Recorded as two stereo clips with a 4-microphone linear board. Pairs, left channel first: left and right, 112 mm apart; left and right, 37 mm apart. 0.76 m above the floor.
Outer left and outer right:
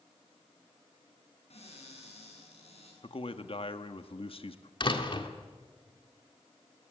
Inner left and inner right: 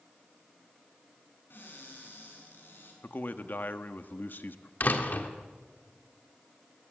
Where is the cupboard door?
65° left (ahead or behind), 7 m.